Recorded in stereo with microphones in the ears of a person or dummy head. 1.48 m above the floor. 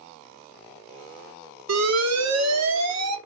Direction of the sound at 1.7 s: 80° right.